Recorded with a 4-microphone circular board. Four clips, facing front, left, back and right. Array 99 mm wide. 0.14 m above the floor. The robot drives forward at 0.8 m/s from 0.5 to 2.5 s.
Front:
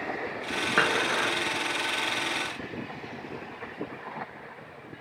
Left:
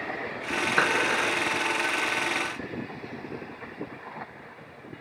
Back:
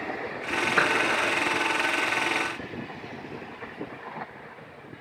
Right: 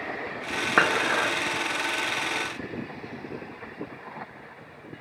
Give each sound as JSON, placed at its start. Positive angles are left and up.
{"t": 0.8, "sound": "dishes clattering", "azimuth_deg": -80, "distance_m": 4.5}